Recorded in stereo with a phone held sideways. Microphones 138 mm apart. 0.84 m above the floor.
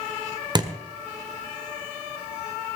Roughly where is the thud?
Right.